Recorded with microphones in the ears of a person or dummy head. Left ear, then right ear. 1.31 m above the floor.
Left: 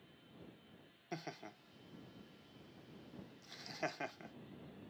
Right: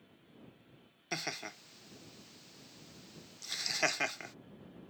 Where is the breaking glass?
I don't hear breaking glass.